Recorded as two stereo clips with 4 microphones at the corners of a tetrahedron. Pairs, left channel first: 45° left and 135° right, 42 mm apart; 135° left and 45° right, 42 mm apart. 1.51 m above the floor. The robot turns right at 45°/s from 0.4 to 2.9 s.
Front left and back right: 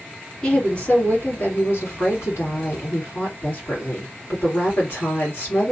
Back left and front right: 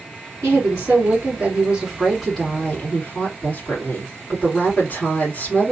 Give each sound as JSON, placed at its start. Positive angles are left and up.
{"t": 0.4, "sound": "a woman speaking", "azimuth_deg": -30, "distance_m": 2.5}